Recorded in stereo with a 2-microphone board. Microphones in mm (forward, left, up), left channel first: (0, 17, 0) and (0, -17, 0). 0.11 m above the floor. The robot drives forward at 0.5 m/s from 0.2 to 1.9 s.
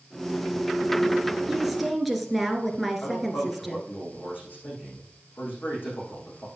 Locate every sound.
1.5 s a woman speaking: centre (ahead or behind), 1.7 m
3.0 s a man speaking: 65° left (ahead or behind), 6.5 m